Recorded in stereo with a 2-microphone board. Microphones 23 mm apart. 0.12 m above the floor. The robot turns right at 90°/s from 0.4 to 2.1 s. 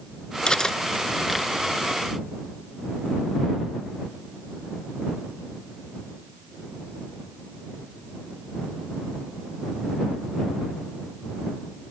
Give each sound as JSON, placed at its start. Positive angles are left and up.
{"t": 0.5, "sound": "cutlery clinking", "side_deg": 35}